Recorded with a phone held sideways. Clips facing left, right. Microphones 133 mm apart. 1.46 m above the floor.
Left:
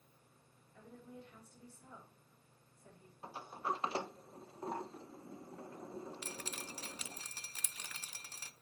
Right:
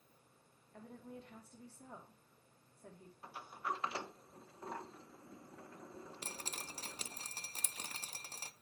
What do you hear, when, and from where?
0.7 s a woman speaking: 85° right, 4 m
3.2 s a sliding door: 30° left (ahead or behind), 0.9 m
6.2 s dripping: 40° right (ahead or behind), 0.6 m